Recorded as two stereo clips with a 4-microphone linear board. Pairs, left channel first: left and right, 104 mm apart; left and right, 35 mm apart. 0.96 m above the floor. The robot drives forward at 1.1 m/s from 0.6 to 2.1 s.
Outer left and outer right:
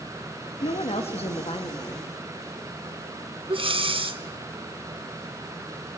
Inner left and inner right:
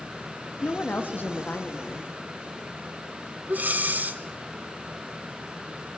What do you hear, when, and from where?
0.6 s a woman speaking: 65° left (ahead or behind), 1.2 m; by 2.1 s 40° left (ahead or behind), 1.6 m
3.5 s breathing: 60° right (ahead or behind), 1.1 m